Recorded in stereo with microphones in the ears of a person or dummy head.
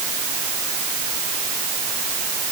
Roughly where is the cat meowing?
I don't hear a cat meowing.